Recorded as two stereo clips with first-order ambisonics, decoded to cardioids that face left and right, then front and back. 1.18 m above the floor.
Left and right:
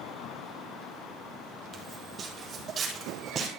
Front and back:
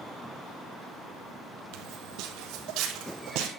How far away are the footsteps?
About 2 m.